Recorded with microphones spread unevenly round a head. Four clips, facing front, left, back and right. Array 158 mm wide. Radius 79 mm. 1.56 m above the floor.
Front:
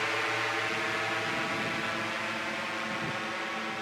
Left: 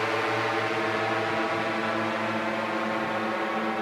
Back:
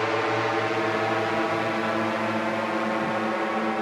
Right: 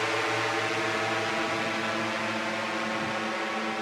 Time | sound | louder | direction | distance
0.0 | a drone | left 2 dB, back 8 dB | 170° left | ?